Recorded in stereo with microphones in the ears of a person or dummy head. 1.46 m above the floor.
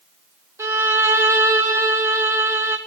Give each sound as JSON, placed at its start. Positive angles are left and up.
{"t": 0.6, "sound": "a violin", "side_deg": -15, "distance_m": 0.8}